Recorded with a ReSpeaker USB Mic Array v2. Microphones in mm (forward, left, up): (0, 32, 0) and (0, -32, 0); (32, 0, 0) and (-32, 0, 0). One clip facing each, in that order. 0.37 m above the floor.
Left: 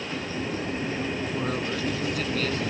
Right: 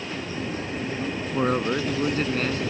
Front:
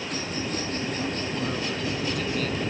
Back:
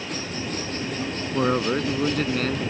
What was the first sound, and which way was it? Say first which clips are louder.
A man speaking: right 5 dB, back 7 dB; 140° right.